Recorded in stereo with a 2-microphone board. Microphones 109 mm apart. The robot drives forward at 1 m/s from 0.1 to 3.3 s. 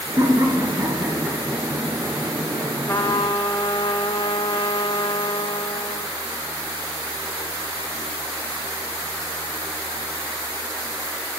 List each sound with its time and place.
0.2 s laughter: 30° right (ahead or behind), 1.4 m; by 2.2 s 15° right (ahead or behind), 2.5 m
2.9 s a trumpet: 30° left (ahead or behind), 0.9 m; by 6.1 s 50° left (ahead or behind), 0.5 m